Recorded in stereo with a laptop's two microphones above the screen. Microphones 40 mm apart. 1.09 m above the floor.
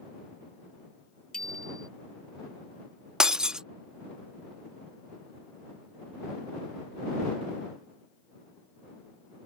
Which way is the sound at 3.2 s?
20° right (ahead or behind).